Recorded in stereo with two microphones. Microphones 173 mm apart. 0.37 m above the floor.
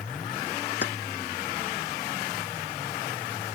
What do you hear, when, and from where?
0.8 s keys jangling: 85° left